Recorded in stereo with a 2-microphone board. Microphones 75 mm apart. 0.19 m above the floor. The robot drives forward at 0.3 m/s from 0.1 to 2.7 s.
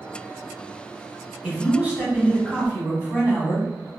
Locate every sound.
1.4 s a man speaking: 20° right (ahead or behind), 1.0 m; by 3.9 s 15° right (ahead or behind), 1.1 m